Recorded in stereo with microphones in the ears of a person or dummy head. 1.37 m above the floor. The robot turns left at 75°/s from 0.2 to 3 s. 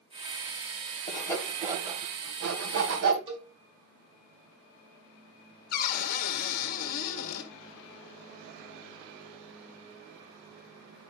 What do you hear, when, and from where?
1.1 s sawing: 30° left (ahead or behind), 2.5 m; by 3.2 s 60° right (ahead or behind), 2.5 m
3.3 s a cowbell: 30° right (ahead or behind), 2.5 m
5.7 s a cupboard door: 50° left (ahead or behind), 1.4 m